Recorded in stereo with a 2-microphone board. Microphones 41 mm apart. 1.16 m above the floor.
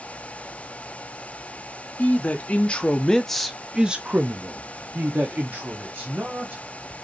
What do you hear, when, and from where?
2.0 s a man speaking: 35° left (ahead or behind), 1.1 m; by 6.6 s 50° right (ahead or behind), 1.7 m